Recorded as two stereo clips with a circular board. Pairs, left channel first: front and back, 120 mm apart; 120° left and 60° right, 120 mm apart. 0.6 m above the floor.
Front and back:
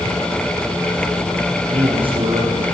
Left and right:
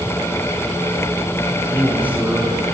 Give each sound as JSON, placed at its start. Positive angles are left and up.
{"t": 1.7, "sound": "a man speaking", "azimuth_deg": -135, "distance_m": 7.0}